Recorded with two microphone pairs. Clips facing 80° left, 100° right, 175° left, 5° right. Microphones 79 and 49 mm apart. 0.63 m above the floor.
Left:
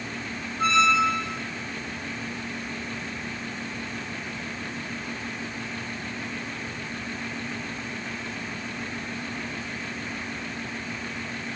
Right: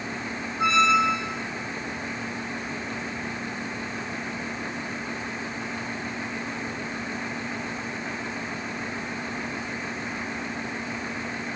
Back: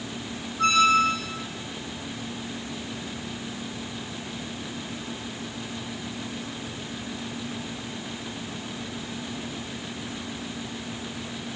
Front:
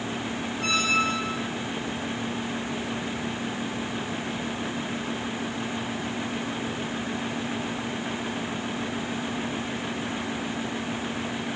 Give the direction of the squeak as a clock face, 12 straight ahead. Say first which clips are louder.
Right 1 dB, back 6 dB; 6 o'clock.